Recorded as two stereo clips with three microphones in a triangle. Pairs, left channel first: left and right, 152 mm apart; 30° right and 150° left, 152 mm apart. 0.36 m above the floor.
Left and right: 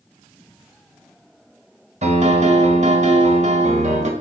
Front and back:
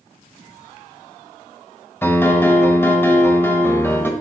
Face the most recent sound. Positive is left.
turn(degrees=-100)